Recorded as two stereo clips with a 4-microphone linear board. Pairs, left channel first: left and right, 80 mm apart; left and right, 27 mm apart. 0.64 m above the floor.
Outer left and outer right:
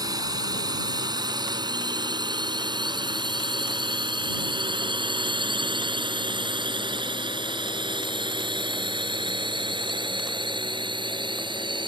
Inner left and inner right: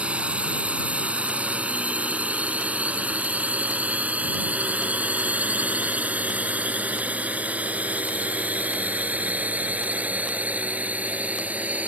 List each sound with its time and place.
0.0 s a drone: 50° right (ahead or behind); by 11.9 s 80° right